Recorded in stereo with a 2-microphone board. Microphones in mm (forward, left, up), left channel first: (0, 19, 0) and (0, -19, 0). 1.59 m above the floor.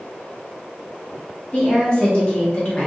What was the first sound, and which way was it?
A woman speaking, 25° left (ahead or behind).